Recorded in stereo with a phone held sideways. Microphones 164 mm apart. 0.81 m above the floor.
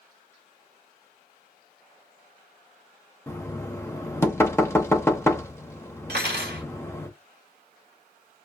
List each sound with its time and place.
3.3 s knocking: 15° left (ahead or behind), 0.8 m
6.1 s cutlery clinking: 90° right, 1.3 m